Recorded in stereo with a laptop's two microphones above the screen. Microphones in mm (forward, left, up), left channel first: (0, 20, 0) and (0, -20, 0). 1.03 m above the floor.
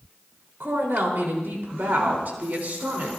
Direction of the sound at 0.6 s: 70° right (ahead or behind).